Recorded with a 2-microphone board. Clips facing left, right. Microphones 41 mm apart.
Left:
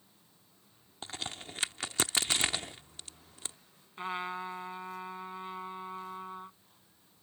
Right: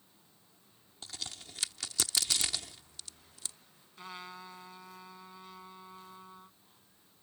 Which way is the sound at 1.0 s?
40° left (ahead or behind).